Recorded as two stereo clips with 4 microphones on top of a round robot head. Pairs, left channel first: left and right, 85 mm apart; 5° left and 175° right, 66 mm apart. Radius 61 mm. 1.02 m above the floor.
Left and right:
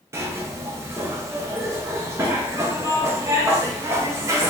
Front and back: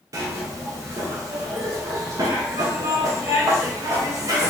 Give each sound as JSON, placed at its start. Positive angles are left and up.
{"t": 0.1, "sound": "a zipper", "azimuth_deg": -145, "distance_m": 1.0}